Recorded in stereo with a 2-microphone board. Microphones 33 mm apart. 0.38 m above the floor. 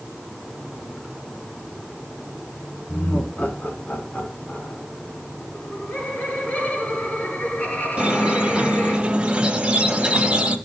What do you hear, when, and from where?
2.9 s laughter: 50° left (ahead or behind), 4.5 m
5.5 s laughter: 35° left (ahead or behind), 4.5 m
8.0 s a squeak: 35° right (ahead or behind), 1.6 m